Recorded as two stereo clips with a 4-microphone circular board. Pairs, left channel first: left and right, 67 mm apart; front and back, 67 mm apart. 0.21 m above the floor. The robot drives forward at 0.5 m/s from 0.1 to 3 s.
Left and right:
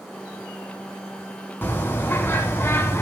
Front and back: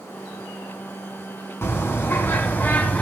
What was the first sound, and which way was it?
A bird, 40° left.